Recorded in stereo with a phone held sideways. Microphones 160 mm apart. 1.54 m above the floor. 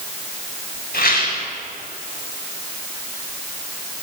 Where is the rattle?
70° left (ahead or behind), 6 m.